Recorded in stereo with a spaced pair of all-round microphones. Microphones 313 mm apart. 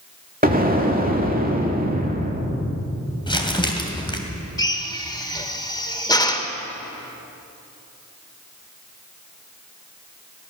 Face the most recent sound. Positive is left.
turn(degrees=10)  # may be behind; listen again after turning